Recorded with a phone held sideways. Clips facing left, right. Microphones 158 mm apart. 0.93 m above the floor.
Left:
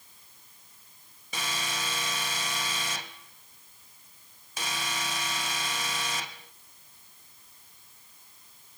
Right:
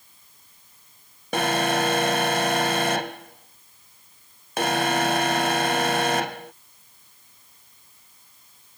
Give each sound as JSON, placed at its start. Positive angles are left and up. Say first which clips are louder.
{"t": 1.3, "sound": "an alarm", "louder": "right 15 dB", "side_deg": -70}